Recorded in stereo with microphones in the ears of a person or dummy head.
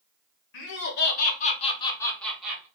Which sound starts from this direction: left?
Laughter, at 0.5 s.